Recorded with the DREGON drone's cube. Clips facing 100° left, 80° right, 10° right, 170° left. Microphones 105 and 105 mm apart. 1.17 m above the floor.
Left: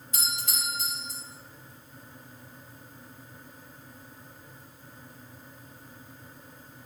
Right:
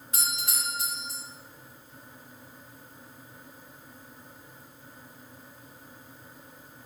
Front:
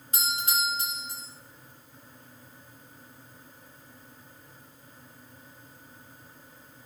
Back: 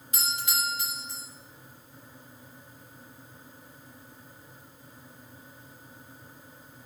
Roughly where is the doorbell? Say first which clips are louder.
Right 1 dB, front 3 dB; ahead right.